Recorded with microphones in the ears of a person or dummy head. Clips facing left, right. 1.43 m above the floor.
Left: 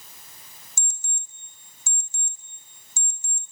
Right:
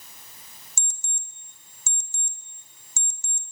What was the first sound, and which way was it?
An alarm clock, 65° right (ahead or behind).